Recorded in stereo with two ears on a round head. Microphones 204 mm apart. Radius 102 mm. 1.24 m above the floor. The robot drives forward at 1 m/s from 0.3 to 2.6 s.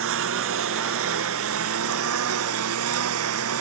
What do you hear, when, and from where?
0.0 s a lawn mower: 65° right (ahead or behind); by 3.6 s 70° right (ahead or behind)